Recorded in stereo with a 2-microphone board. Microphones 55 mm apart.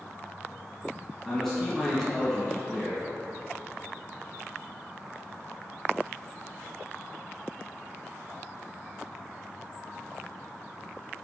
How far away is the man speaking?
About 2.5 m.